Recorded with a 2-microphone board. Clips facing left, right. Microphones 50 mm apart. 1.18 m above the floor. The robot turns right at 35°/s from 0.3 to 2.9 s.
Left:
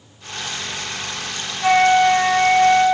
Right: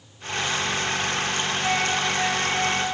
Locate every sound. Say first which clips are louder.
1.6 s a flute: left 13 dB; 40° left, 1.6 m; by 2.9 s 85° left, 1.6 m